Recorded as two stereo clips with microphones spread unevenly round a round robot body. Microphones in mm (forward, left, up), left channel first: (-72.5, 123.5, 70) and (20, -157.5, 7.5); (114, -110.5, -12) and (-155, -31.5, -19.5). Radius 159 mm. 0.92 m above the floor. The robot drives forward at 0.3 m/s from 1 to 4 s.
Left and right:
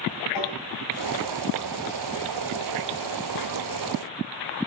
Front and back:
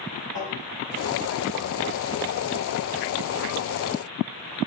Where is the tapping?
100° left, 4.5 m.